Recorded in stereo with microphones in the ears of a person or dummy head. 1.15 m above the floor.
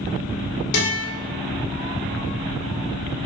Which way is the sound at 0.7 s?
55° left (ahead or behind).